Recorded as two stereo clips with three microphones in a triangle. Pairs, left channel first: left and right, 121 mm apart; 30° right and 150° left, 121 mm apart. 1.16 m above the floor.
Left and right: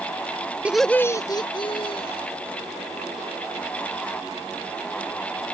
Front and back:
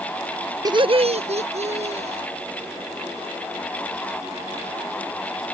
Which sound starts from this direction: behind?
Laughter, at 0.7 s.